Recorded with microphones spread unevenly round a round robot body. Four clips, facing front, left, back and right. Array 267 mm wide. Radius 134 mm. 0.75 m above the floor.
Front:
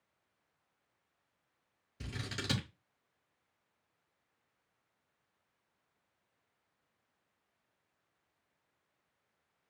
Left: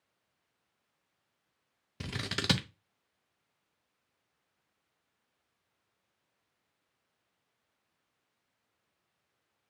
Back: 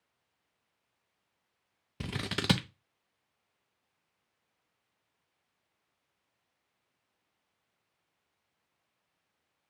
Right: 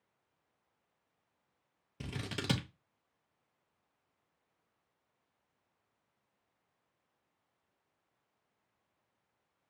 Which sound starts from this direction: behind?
Scissors, at 2.0 s.